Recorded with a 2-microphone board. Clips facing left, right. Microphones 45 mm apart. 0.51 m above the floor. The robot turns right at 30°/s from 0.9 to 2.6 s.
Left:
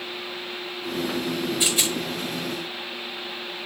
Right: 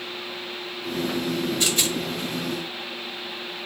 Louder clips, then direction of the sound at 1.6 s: Even; 10° left (ahead or behind).